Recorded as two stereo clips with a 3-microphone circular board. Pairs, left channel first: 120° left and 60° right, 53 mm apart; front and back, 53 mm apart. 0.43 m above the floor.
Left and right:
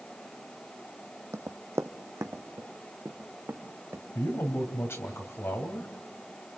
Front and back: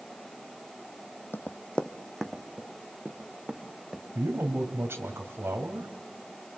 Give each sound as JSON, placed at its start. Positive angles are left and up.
{"t": 1.3, "sound": "running footsteps", "azimuth_deg": -45, "distance_m": 1.0}
{"t": 4.2, "sound": "a man speaking", "azimuth_deg": 145, "distance_m": 2.5}